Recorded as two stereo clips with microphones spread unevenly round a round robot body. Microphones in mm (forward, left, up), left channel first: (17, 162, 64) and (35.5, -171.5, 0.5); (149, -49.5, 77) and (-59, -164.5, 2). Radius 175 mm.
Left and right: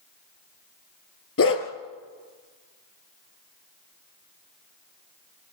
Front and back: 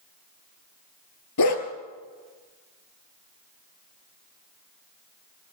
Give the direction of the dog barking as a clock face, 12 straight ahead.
11 o'clock.